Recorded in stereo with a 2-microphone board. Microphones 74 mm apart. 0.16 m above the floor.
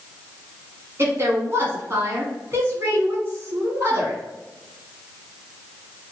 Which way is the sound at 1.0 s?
35° right (ahead or behind).